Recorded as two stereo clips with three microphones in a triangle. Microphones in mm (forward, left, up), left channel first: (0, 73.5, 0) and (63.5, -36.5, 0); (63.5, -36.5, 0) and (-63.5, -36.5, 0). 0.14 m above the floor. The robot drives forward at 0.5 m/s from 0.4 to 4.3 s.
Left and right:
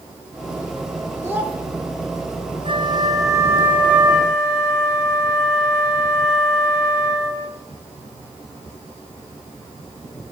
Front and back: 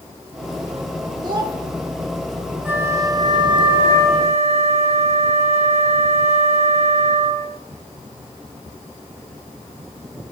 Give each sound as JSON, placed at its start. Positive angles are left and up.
{"t": 1.2, "sound": "a child speaking", "azimuth_deg": -130, "distance_m": 4.0}
{"t": 2.6, "sound": "a flute", "azimuth_deg": -105, "distance_m": 0.8}